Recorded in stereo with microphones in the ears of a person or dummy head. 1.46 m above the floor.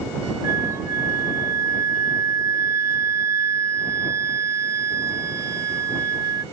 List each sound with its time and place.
0.4 s a flute: 10° right (ahead or behind)